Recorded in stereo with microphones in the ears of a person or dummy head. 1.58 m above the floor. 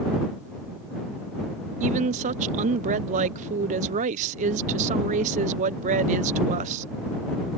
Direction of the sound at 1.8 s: 40° right (ahead or behind).